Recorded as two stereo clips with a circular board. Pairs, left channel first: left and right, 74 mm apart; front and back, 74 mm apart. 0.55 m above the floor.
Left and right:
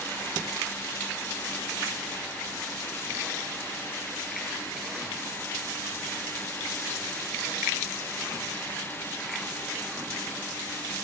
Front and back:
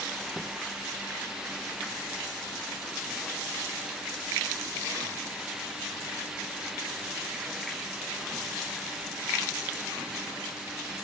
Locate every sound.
Only background noise.